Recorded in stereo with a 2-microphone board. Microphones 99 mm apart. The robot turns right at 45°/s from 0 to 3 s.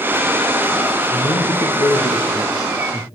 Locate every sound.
1.1 s a man speaking: 75° left, 3 m; by 3.0 s 160° left, 3 m